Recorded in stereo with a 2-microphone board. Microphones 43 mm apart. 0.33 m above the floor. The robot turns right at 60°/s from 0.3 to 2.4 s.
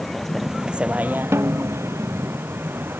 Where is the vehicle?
175° left; by 3.0 s 60° right.